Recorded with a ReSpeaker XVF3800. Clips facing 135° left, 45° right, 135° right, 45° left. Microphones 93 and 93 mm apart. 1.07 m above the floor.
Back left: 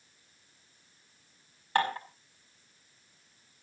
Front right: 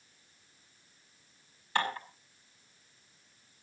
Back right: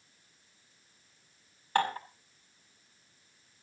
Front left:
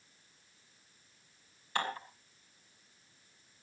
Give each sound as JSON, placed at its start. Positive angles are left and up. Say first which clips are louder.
{"t": 1.8, "sound": "dishes clattering", "louder": "back left 4 dB, back right 7 dB", "azimuth_deg": 180, "distance_m": 5.5}